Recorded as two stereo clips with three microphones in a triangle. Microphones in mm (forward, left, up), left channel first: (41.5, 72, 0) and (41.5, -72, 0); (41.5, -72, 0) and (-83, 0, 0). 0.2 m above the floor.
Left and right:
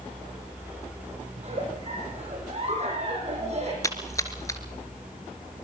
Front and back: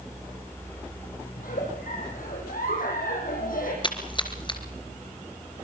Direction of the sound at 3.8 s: 25° left.